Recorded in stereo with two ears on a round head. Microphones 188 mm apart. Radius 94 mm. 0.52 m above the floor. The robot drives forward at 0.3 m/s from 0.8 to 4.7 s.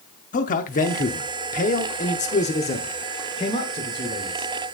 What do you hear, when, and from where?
0.3 s a man speaking: 40° left (ahead or behind), 0.8 m; by 4.5 s 20° left (ahead or behind), 1.3 m